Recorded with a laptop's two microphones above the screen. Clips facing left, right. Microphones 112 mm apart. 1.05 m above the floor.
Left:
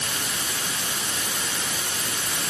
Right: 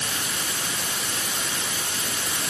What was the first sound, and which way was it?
Only background noise.